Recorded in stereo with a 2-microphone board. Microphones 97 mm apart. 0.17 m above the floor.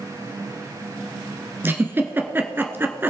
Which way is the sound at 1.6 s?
25° right (ahead or behind).